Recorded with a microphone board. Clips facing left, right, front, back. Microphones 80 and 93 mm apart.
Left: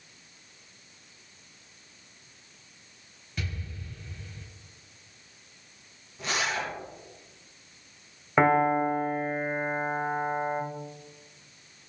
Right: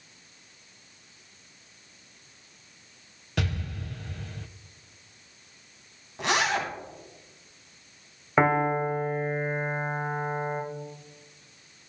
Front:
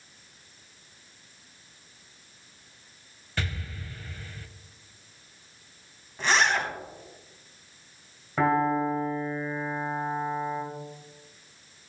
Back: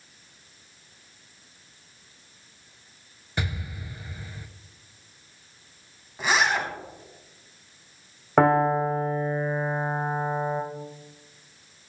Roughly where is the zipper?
Right.